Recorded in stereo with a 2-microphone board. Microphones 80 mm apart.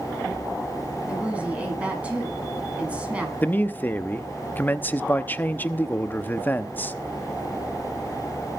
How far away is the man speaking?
About 0.8 m.